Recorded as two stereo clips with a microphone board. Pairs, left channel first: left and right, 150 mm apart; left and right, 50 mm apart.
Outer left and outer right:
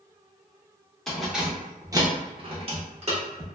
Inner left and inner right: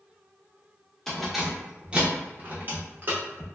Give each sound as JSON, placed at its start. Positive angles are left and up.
{"t": 1.1, "sound": "keys jangling", "side_deg": 5, "distance_m": 0.7}